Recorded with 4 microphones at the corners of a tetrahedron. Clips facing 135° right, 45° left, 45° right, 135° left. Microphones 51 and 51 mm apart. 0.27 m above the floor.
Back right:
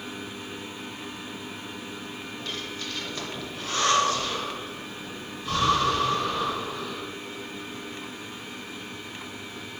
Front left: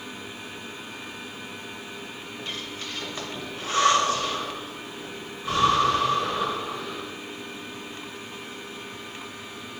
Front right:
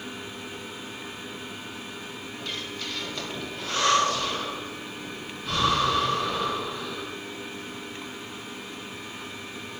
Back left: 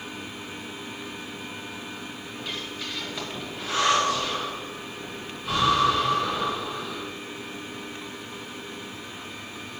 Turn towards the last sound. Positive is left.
turn(degrees=70)